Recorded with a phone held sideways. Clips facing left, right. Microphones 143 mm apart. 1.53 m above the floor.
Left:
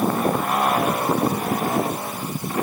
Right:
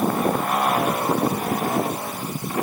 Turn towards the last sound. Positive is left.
No sound to turn to.